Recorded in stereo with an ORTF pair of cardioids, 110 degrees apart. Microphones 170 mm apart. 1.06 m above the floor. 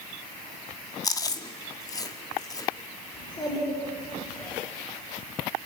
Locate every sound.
1.0 s chewing: 20° left, 1.4 m
3.1 s a child speaking: 30° left, 8 m